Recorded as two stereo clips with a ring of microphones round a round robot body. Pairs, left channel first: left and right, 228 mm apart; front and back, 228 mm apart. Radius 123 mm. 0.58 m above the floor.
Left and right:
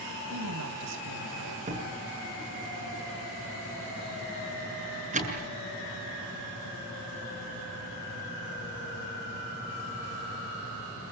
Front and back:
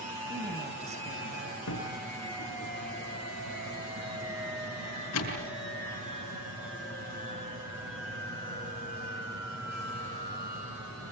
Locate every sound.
0.3 s a woman speaking: 115° right, 3 m
1.7 s a door slam: 30° right, 6.5 m